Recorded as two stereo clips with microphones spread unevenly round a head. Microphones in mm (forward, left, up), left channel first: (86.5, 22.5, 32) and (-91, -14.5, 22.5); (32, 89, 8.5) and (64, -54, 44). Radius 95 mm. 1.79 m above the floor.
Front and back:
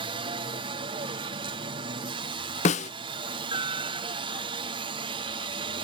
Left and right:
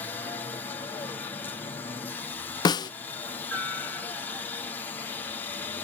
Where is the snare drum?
40° left.